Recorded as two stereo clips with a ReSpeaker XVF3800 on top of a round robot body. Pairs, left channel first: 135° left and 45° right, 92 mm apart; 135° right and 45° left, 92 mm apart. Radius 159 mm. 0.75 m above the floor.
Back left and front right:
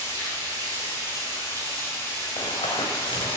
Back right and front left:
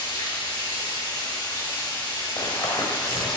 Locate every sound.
0.0 s running water: 90° right, 5 m
2.4 s running footsteps: straight behind, 3.5 m